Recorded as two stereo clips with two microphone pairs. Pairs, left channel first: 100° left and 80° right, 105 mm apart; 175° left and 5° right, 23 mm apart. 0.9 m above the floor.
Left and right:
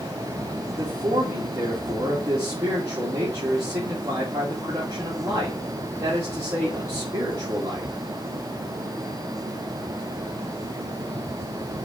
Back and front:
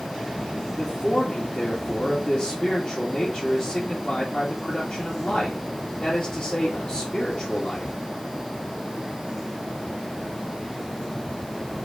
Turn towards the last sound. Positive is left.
turn(degrees=-135)